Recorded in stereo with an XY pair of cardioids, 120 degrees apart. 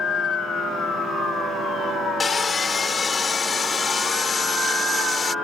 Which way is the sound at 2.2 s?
35° left.